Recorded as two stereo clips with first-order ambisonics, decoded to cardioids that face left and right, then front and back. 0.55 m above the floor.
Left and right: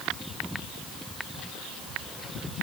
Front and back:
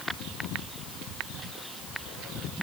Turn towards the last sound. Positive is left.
No sound to turn to.